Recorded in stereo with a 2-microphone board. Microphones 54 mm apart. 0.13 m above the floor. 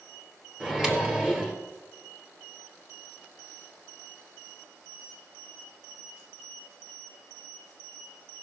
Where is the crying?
No crying in this recording.